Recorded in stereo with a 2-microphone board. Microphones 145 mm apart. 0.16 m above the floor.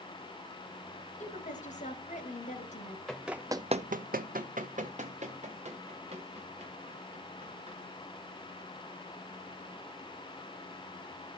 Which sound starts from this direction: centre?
Running footsteps, at 3.1 s.